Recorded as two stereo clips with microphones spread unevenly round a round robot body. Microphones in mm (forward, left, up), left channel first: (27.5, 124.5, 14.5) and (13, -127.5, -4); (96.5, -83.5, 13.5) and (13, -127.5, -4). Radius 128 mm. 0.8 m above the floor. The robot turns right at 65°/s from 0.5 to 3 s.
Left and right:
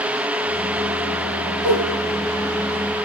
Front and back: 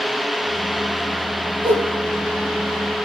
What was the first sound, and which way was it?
A whoosh, 115° right.